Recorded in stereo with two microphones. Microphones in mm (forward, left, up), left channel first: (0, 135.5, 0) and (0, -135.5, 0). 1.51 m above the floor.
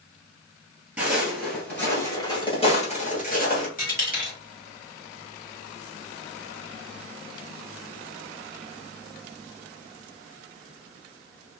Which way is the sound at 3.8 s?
30° left (ahead or behind).